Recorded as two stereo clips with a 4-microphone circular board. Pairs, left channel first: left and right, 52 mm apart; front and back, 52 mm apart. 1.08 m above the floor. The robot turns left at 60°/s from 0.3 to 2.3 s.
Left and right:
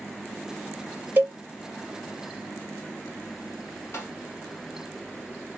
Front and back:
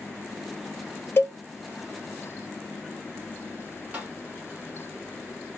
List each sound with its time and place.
1.2 s a cowbell: 40° right, 0.9 m; by 1.4 s 55° right, 0.9 m
3.9 s tapping: 120° left, 2.0 m